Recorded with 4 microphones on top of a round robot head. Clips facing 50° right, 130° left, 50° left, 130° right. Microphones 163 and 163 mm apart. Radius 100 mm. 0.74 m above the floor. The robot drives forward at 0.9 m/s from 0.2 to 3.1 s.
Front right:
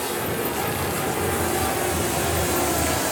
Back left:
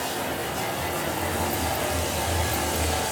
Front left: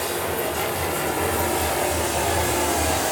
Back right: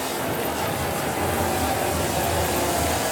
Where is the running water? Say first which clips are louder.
Front right 3 dB, front left 1 dB; 25° right, 7 m; by 3.1 s 35° right, 5 m.